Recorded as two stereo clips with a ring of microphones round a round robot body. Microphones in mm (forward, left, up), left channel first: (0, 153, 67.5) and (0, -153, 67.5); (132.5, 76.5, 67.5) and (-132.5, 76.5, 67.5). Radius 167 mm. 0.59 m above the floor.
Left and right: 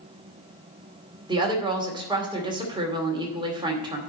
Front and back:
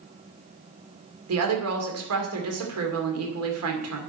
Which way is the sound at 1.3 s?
165° right.